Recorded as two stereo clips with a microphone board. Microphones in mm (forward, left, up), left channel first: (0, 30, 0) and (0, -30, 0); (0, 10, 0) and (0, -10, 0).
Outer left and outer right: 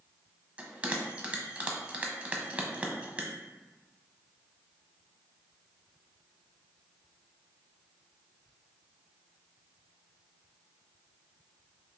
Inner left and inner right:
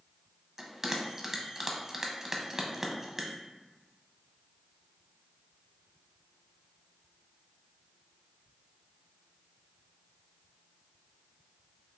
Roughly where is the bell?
Right.